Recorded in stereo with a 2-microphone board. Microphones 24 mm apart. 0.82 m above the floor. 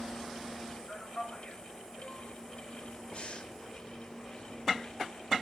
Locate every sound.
0.9 s a man speaking: 40° left (ahead or behind), 4 m; by 2.3 s 55° left (ahead or behind), 3.5 m
3.1 s breathing: 45° left (ahead or behind), 1.7 m